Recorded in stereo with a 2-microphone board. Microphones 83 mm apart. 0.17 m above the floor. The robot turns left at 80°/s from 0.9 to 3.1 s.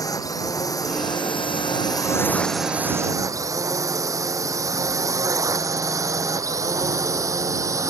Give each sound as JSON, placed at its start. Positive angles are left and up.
{"t": 0.0, "sound": "a drone", "side_deg": 45}